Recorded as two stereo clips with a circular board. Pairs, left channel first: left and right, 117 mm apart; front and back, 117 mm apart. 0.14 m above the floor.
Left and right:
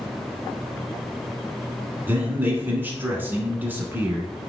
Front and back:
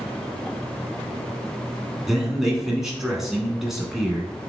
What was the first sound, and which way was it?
A man speaking, 100° right.